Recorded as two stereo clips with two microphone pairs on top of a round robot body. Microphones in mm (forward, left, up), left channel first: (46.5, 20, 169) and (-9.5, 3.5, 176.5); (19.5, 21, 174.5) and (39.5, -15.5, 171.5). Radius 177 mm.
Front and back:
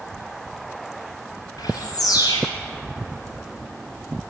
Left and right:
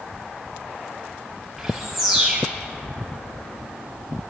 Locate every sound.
1.6 s a bird: 25° left, 0.7 m